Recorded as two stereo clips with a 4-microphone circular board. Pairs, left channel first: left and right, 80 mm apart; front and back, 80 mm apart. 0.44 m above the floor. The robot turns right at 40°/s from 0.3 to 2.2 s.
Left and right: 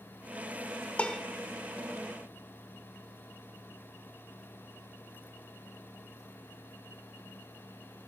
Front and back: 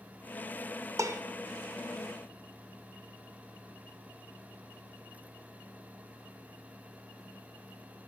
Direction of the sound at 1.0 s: 160° left.